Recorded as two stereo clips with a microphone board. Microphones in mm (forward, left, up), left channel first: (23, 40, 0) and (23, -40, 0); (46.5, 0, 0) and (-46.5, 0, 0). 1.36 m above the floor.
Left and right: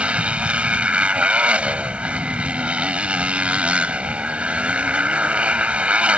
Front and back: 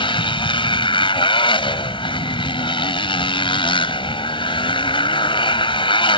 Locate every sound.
0.0 s a motorcycle: 15° right